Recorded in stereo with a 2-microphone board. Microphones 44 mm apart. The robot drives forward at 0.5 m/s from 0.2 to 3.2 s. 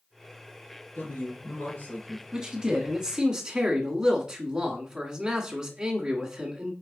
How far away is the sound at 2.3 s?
About 1.2 m.